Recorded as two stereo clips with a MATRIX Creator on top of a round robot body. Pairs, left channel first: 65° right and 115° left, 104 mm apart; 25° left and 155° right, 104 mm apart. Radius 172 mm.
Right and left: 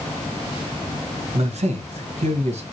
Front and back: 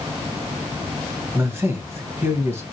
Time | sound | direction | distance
1.3 | a man speaking | 135° left | 1.3 m